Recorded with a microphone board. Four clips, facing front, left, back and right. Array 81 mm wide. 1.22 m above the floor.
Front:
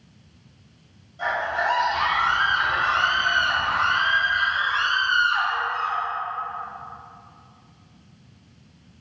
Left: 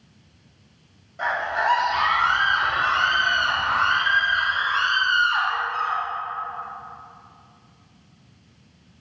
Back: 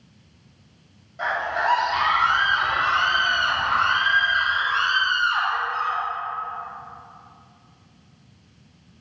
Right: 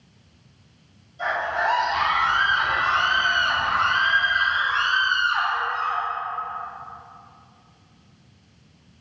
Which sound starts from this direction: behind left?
A scream, at 1.2 s.